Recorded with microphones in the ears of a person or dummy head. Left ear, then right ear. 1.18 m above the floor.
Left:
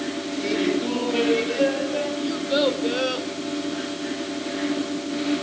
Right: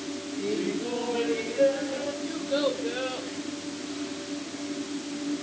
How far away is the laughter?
About 2.5 m.